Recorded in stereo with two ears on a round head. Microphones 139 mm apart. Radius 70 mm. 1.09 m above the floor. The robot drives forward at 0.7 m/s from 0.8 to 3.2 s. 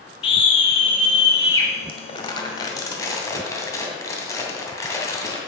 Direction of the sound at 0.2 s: 35° left (ahead or behind).